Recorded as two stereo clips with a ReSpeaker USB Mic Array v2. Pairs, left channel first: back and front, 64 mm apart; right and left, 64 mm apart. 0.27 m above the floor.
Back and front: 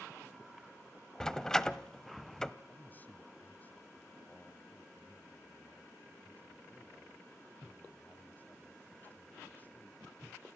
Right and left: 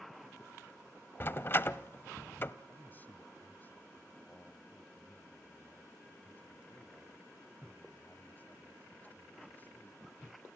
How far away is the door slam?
About 0.8 m.